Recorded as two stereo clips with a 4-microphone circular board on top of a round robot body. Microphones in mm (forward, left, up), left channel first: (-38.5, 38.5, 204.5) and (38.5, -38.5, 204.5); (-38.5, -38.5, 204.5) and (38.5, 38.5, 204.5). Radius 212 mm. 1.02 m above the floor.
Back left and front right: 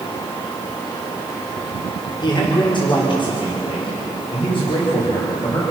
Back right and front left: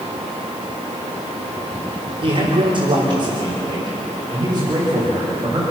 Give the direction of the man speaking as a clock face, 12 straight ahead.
9 o'clock.